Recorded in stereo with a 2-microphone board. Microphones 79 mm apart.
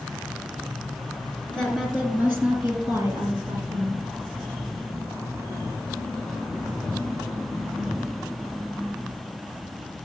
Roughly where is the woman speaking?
Centre.